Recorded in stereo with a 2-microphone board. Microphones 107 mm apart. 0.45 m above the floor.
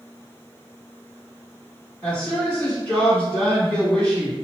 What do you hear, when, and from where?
2.0 s a woman speaking: 10° left (ahead or behind), 1.4 m